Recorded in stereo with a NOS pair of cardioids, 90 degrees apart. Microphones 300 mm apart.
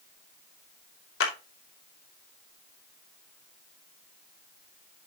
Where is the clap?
45° left, 2.5 m.